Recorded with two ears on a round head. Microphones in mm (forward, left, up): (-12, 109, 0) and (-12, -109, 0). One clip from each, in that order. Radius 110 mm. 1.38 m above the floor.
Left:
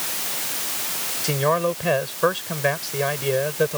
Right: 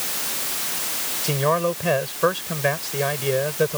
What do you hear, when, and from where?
1.2 s a man speaking: 10° left (ahead or behind)